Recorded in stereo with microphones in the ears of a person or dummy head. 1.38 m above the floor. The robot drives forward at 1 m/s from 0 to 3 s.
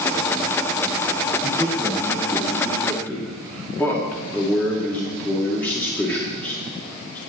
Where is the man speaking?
15° left (ahead or behind), 1.1 m; by 7.2 s 5° left (ahead or behind), 2.5 m.